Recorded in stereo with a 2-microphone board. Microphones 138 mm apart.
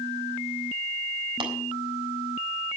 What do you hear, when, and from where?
1.4 s tapping: 35° right (ahead or behind), 3.5 m